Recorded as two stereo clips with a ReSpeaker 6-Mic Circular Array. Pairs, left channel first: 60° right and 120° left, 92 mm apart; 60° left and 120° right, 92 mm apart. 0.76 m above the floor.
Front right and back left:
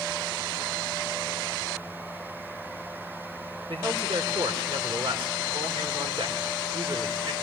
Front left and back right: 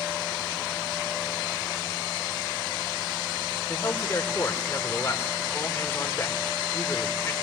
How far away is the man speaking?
About 3 m.